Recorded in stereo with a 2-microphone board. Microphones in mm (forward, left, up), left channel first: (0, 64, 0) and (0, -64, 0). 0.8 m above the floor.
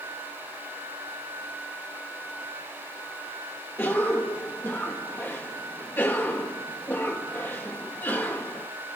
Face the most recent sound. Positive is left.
turn(degrees=15)  # may be behind; listen again after turning